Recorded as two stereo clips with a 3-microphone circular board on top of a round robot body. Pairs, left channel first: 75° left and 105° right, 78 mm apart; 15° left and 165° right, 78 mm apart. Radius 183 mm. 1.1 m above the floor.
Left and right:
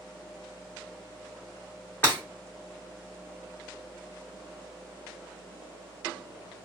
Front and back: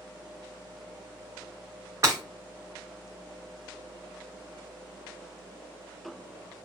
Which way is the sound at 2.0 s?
145° left.